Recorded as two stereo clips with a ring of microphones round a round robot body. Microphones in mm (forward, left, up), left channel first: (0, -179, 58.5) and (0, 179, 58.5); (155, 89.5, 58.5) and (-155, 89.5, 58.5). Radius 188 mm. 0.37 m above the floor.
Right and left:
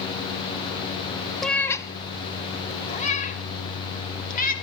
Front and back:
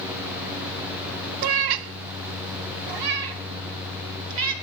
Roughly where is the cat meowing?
Behind.